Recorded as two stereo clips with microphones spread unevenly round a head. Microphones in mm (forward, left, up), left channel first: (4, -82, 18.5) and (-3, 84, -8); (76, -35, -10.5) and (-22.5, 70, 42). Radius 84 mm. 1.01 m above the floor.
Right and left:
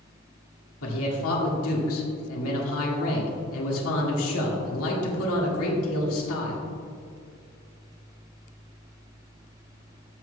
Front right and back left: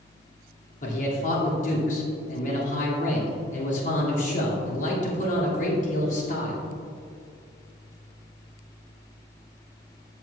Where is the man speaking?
80° right, 1.9 m.